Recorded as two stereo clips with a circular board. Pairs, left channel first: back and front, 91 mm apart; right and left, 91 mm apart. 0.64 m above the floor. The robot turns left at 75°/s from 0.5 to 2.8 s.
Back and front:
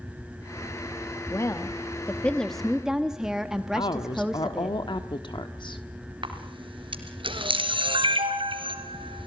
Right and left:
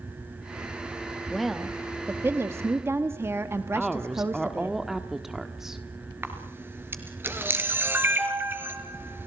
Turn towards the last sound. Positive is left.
turn(degrees=25)